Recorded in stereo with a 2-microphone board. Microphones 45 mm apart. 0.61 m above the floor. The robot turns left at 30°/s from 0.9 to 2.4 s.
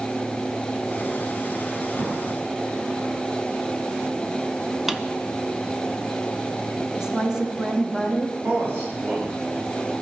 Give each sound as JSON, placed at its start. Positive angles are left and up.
{"t": 1.9, "sound": "a drawer", "side_deg": -45, "distance_m": 5.5}
{"t": 4.9, "sound": "a drawer", "side_deg": -10, "distance_m": 0.5}
{"t": 6.9, "sound": "a woman speaking", "side_deg": -10, "distance_m": 1.3}
{"t": 8.4, "sound": "a man speaking", "side_deg": -50, "distance_m": 5.5}